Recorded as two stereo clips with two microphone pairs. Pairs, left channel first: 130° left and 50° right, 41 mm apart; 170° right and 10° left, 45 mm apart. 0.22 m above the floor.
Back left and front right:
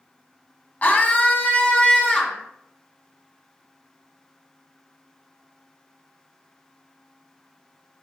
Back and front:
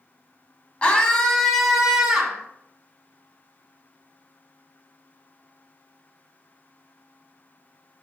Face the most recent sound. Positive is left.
turn(degrees=80)